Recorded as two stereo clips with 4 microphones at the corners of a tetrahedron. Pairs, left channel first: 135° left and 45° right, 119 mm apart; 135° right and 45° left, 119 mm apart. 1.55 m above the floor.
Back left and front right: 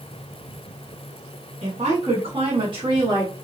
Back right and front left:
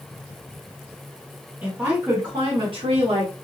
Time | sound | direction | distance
1.6 | a woman speaking | 30° right | 1.6 m